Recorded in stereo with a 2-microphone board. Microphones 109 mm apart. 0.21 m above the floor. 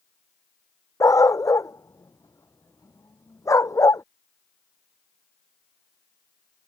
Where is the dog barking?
30° left (ahead or behind).